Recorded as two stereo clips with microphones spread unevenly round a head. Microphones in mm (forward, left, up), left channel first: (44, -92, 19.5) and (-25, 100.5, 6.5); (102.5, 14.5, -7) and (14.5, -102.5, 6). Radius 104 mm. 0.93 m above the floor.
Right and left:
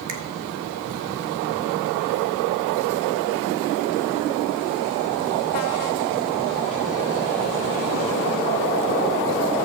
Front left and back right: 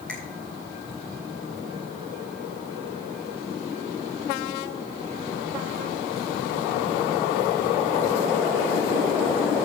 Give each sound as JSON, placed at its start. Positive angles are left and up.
{"t": 0.1, "sound": "a finger snap", "azimuth_deg": 140, "distance_m": 1.4}